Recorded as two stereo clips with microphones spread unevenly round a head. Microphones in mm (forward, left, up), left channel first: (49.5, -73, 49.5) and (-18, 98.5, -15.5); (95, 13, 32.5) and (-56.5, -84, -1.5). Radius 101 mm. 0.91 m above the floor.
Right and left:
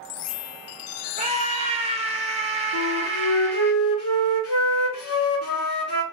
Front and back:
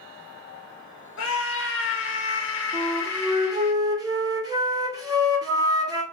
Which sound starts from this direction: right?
A flute, at 2.7 s.